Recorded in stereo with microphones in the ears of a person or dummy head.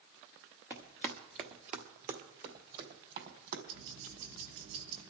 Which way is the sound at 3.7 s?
80° right.